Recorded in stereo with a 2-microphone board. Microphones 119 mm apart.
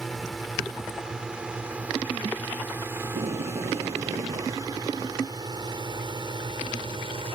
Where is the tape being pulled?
70° right (ahead or behind).